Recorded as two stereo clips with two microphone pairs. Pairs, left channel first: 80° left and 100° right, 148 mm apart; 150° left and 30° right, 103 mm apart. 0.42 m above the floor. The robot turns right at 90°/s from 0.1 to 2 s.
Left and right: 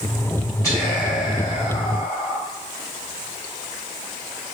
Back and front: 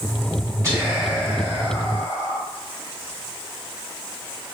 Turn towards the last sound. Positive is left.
turn(degrees=145)